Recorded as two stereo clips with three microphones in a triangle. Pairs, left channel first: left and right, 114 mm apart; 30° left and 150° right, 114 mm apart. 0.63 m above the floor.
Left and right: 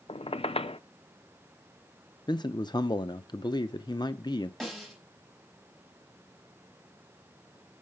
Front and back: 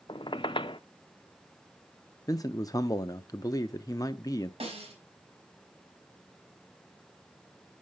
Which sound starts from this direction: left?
A man speaking, at 2.3 s.